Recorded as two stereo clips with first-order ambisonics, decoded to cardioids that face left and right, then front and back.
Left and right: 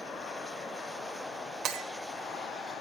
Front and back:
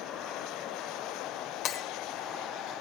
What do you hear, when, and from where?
1.6 s breaking glass: 35° right, 1.0 m